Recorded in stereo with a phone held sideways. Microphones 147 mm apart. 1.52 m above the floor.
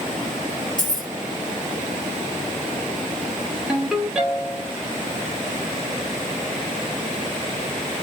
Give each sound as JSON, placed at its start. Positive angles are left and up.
{"t": 0.8, "sound": "keys jangling", "side_deg": -65, "distance_m": 0.8}
{"t": 3.7, "sound": "a ringtone", "side_deg": -5, "distance_m": 1.0}